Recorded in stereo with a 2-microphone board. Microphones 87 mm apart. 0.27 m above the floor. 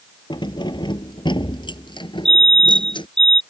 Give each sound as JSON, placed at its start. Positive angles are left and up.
{"t": 0.3, "sound": "keys jangling", "side_deg": 65}
{"t": 2.2, "sound": "a fire alarm", "side_deg": -80}